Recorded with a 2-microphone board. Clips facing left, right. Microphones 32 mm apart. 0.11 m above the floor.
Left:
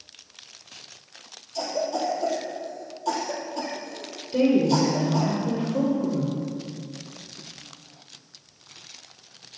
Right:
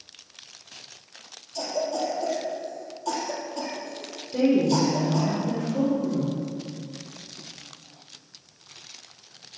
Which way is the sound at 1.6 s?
10° left (ahead or behind).